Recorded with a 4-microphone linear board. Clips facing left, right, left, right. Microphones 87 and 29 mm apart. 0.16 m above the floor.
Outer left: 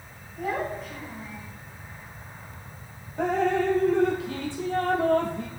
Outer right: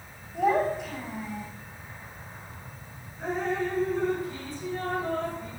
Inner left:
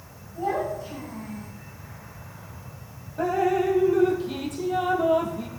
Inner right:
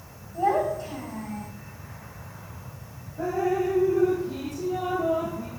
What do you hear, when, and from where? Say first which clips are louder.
0.3 s a child speaking: outer right 6 dB, inner right 3 dB; 75° right (ahead or behind), 8.5 m
3.2 s dripping: outer left 6 dB, inner left 3 dB; 80° left, 2.5 m